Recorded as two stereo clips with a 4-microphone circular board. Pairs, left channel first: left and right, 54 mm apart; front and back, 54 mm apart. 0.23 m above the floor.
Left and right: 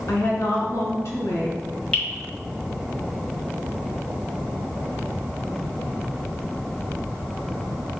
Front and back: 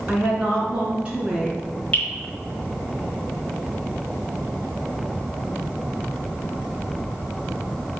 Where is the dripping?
40° left, 1.9 m.